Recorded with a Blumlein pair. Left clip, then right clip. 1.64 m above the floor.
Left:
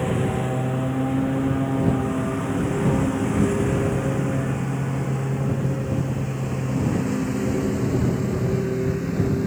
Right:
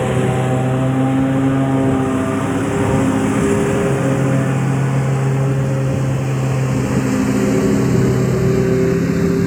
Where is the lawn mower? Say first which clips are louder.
Right 7 dB; 70° right; by 9.5 s 65° right.